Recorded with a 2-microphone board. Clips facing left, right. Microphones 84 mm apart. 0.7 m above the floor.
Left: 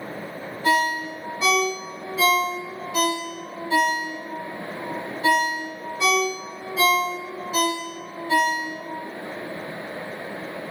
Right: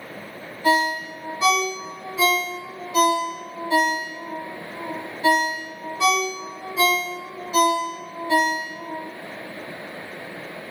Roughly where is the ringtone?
Centre.